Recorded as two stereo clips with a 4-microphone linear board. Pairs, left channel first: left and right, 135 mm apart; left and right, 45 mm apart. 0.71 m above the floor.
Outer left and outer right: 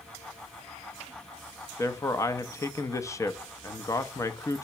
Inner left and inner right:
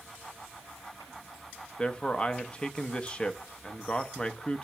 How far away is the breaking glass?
No breaking glass in this recording.